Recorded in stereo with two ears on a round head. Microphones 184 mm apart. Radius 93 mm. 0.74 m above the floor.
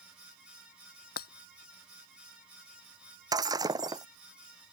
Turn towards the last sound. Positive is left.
turn(degrees=-20)  # may be behind; listen again after turning